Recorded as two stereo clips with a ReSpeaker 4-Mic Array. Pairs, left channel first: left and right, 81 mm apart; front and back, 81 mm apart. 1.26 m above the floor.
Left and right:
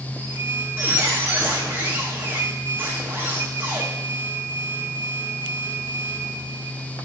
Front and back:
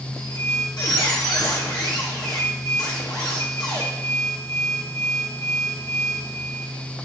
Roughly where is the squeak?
Ahead right.